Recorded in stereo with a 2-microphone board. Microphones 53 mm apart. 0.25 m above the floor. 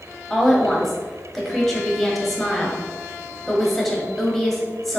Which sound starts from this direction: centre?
A woman speaking, at 0.3 s.